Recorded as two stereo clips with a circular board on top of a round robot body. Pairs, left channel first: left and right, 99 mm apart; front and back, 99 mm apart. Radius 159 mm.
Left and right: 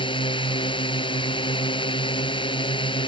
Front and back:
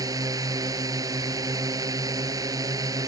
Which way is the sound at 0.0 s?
125° left.